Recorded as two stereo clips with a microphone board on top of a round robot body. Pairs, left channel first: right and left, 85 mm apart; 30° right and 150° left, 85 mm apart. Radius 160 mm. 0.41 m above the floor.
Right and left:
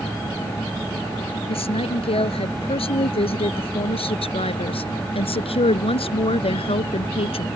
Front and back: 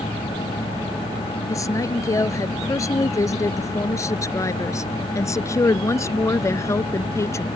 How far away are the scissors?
No scissors in this recording.